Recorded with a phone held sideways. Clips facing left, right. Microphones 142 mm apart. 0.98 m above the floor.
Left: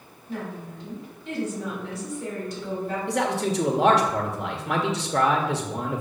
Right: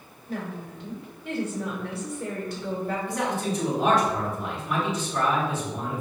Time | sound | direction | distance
0.3 | a woman speaking | 55° right (ahead or behind) | 2.5 m
3.1 | a man speaking | 75° left (ahead or behind) | 1.3 m